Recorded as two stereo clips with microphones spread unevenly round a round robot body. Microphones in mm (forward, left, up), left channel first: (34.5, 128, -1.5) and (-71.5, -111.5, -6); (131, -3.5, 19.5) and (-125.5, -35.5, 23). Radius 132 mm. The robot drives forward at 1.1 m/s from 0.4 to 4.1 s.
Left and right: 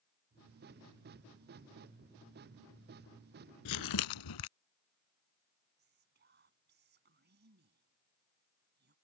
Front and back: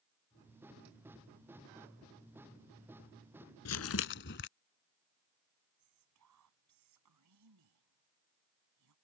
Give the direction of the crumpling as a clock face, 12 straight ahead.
11 o'clock.